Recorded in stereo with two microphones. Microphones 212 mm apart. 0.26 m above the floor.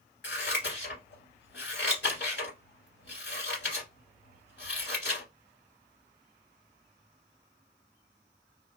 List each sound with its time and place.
0.2 s scissors: 75° left (ahead or behind), 1.6 m